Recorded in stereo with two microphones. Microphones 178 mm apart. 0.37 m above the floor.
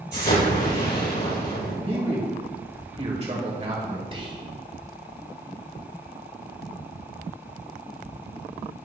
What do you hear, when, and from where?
0.1 s an explosion: 80° left, 3 m
1.8 s a man speaking: 35° right (ahead or behind), 1.9 m
4.1 s whispering: 30° right (ahead or behind), 1.3 m